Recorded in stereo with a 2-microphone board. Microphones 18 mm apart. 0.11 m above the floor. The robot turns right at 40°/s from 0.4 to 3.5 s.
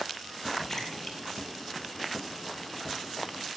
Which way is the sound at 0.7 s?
30° left (ahead or behind).